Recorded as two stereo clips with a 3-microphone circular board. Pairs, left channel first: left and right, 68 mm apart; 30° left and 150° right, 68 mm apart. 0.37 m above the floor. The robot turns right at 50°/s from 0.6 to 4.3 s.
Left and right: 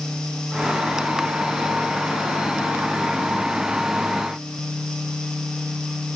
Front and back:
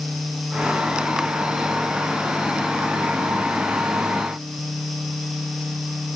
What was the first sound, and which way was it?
Only background noise.